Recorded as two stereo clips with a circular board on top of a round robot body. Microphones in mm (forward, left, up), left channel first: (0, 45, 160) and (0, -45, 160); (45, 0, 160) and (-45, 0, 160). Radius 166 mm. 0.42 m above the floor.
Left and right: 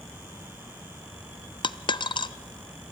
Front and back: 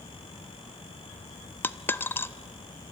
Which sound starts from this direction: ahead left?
A dropped coin, at 1.6 s.